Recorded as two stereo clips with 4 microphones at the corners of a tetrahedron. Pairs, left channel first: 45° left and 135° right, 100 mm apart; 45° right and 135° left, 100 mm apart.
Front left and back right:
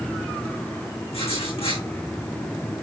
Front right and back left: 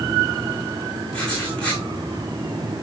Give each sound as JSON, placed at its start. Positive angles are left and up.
{"t": 1.1, "sound": "writing", "azimuth_deg": 35, "distance_m": 6.5}